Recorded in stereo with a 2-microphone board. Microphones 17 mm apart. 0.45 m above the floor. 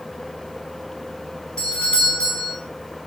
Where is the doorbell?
75° left (ahead or behind), 5 m.